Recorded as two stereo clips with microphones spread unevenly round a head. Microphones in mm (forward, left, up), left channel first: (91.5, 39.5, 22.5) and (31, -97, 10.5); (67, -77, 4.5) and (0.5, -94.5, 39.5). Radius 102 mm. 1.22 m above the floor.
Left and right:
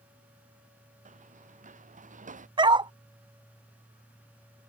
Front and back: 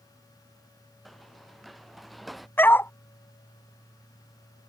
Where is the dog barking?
55° right.